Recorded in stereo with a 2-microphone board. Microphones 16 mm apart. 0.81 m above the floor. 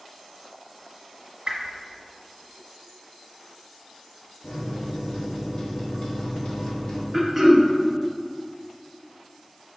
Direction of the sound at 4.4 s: 45° left (ahead or behind).